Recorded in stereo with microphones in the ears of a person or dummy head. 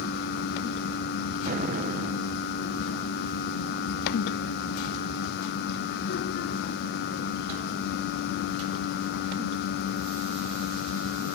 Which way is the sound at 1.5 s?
40° right (ahead or behind).